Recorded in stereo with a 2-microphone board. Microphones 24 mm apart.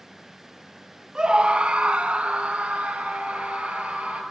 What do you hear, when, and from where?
1.1 s a scream: 35° right (ahead or behind), 1.3 m; by 4.2 s 65° right (ahead or behind), 4 m